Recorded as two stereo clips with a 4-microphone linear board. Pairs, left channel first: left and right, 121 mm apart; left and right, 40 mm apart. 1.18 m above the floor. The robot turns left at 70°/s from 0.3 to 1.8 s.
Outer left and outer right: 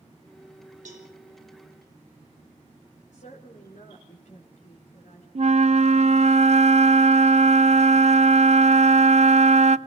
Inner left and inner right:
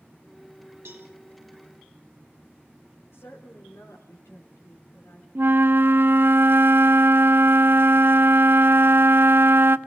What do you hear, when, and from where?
0.8 s a cowbell: 75° right (ahead or behind), 4.5 m; by 1.1 s 60° right (ahead or behind), 4.5 m
3.1 s a woman speaking: 80° left, 3.5 m
5.3 s a flute: 60° right (ahead or behind), 0.5 m